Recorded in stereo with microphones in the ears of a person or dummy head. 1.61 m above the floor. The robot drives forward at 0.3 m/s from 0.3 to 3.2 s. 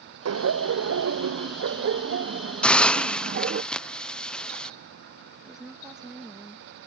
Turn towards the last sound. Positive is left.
turn(degrees=-5)  # may be behind; listen again after turning